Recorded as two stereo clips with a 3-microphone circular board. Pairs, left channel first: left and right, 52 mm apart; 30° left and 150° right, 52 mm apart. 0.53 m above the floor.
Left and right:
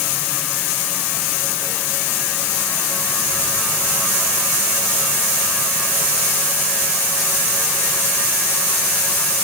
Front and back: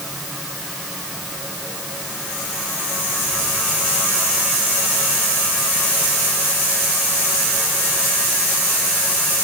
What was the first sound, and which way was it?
Only background noise.